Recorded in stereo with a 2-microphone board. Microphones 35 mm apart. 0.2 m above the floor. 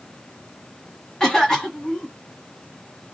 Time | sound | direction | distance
1.2 | a cough | 20° left (ahead or behind) | 1.2 m